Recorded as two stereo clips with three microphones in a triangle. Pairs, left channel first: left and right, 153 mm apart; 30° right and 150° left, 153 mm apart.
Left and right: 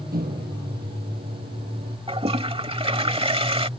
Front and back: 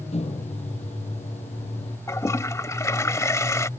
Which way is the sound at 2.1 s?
90° right.